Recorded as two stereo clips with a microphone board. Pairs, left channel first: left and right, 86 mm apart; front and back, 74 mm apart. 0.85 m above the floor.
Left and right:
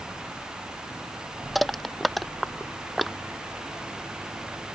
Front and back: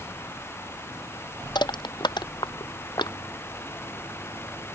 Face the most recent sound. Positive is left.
turn(degrees=0)